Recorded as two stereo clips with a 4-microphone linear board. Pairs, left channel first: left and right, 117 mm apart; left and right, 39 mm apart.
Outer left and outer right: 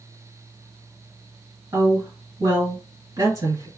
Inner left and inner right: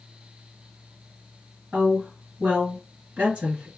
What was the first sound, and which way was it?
A woman speaking, 30° right (ahead or behind).